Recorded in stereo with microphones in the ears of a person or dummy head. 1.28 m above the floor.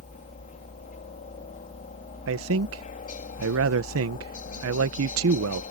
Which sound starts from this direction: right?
A man speaking, at 2.3 s.